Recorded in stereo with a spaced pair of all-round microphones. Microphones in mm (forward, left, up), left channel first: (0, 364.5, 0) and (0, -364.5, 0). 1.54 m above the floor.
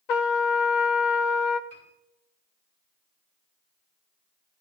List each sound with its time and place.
0.1 s a trumpet: 75° left (ahead or behind), 0.8 m
1.7 s a piano: 45° left (ahead or behind), 4.5 m